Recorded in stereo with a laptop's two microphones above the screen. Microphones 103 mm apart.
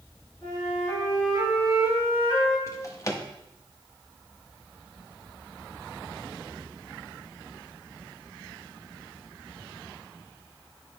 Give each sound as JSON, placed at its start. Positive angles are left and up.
{"t": 0.4, "sound": "a flute", "side_deg": 10, "distance_m": 4.5}
{"t": 2.7, "sound": "a drawer", "side_deg": 30, "distance_m": 1.0}